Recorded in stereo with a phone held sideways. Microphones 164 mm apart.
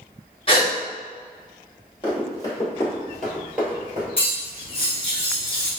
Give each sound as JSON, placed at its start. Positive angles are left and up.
{"t": 0.5, "sound": "a gasp", "side_deg": 35, "distance_m": 1.0}
{"t": 2.0, "sound": "running footsteps", "side_deg": 30, "distance_m": 2.0}
{"t": 4.2, "sound": "cutlery clinking", "side_deg": 35, "distance_m": 1.2}